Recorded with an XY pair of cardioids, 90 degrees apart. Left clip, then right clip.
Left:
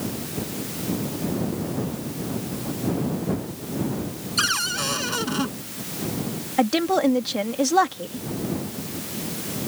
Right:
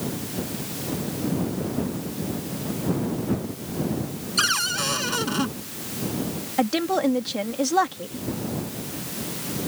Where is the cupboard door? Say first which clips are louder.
Right 1 dB; 5° right.